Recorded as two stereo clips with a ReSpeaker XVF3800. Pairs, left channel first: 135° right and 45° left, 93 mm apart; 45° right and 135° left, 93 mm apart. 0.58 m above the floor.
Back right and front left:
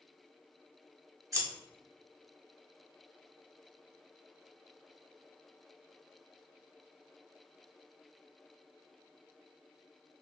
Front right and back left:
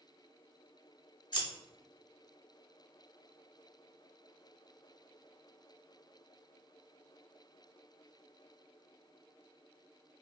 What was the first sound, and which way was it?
Scissors, 10° right.